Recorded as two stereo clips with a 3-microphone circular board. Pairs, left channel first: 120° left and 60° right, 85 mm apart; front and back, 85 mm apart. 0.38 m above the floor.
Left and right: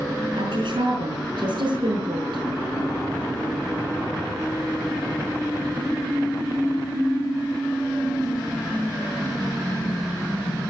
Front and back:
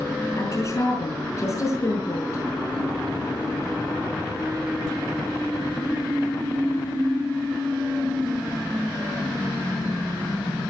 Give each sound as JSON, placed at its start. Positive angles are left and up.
{"t": 0.4, "sound": "a woman speaking", "azimuth_deg": -50, "distance_m": 4.5}